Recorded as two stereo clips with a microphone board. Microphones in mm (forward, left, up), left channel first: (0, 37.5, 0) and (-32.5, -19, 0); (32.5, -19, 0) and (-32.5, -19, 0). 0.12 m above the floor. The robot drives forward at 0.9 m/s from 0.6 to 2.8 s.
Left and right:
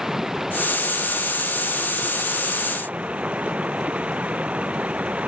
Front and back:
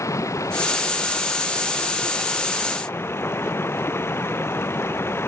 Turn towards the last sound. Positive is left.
turn(degrees=-50)